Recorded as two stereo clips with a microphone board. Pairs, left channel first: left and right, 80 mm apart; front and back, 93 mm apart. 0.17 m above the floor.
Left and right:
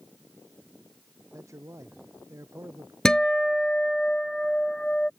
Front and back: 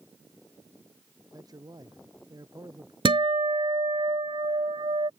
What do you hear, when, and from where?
1.3 s a man speaking: 135° right
3.0 s a guitar: 170° left